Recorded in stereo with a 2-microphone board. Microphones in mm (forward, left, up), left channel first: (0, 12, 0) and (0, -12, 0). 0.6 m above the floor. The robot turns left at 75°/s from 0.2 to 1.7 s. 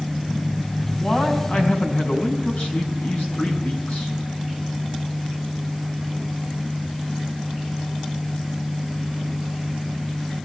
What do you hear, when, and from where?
1.0 s a man speaking: 160° left, 5 m; by 4.2 s 105° left, 5 m